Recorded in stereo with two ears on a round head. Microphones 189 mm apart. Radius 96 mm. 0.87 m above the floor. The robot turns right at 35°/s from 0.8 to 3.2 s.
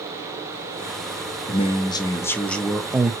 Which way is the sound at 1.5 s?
135° left.